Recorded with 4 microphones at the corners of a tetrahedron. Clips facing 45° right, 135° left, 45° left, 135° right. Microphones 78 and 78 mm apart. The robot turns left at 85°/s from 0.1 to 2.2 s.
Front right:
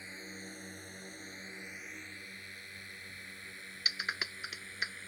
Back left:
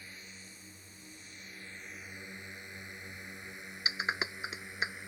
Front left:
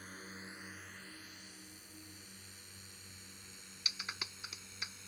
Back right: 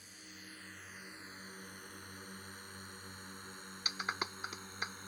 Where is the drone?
20° left; by 5.1 s 155° right.